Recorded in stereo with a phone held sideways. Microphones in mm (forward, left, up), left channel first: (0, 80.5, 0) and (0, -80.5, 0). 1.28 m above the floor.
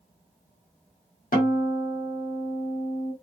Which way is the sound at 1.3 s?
60° left (ahead or behind).